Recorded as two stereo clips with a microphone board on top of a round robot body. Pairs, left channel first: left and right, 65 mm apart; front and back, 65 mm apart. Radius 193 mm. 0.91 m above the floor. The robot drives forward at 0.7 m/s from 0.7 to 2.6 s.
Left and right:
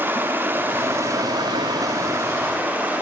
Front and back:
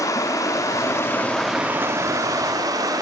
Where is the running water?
30° right, 0.7 m; by 3.0 s 155° right, 0.9 m.